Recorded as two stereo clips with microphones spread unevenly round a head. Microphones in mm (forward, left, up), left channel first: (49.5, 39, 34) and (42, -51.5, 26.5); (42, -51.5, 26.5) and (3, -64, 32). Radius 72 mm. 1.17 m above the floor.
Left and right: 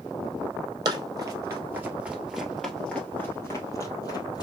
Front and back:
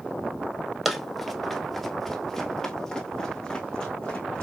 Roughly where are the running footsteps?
Right.